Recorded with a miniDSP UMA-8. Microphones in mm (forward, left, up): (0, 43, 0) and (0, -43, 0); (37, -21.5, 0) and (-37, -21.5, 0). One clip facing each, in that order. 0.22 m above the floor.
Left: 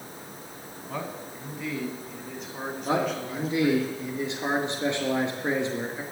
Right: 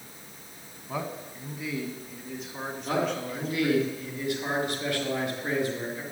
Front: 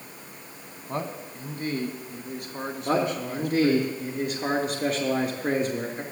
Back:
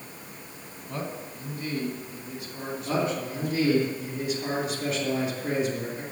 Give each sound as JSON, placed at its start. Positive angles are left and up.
{"t": 0.9, "sound": "a man speaking", "azimuth_deg": -10, "distance_m": 1.8}
{"t": 2.9, "sound": "a man speaking", "azimuth_deg": 30, "distance_m": 3.5}